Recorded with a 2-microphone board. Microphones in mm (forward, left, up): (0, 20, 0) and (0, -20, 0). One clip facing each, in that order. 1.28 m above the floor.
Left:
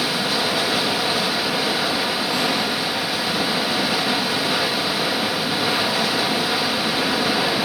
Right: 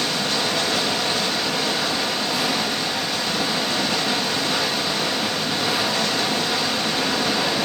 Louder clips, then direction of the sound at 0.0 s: Left 1 dB; 10° left (ahead or behind).